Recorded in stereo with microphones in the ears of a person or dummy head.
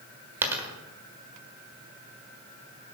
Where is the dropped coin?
15° right (ahead or behind), 1.5 m.